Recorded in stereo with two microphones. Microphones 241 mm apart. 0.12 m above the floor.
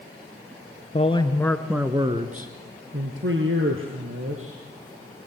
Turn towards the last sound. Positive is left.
turn(degrees=-60)  # may be behind; listen again after turning